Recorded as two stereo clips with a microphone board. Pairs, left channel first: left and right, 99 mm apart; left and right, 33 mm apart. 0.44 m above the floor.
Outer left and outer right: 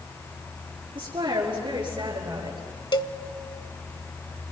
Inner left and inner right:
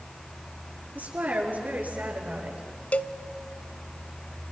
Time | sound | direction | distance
0.9 | a woman speaking | 60° right (ahead or behind) | 7 m
2.9 | a cowbell | 50° left (ahead or behind) | 0.6 m